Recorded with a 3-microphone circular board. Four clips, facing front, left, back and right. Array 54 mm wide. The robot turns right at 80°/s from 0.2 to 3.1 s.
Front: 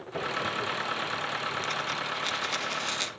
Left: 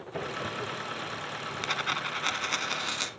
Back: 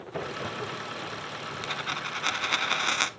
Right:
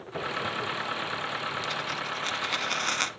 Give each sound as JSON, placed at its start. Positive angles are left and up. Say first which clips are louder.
{"t": 1.6, "sound": "a dropped coin", "louder": "left 1 dB, front 2 dB", "azimuth_deg": 95, "distance_m": 0.9}